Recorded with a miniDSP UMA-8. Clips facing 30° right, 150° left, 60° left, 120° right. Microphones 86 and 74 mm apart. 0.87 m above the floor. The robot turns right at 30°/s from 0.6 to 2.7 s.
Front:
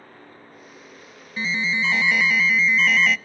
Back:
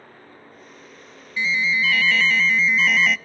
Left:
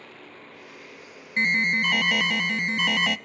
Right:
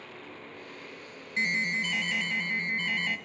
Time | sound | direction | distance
1.4 | an alarm | 20° left | 0.5 m